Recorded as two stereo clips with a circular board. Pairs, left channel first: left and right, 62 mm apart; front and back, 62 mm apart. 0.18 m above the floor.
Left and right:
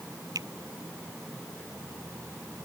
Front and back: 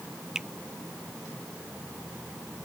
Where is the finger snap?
100° right.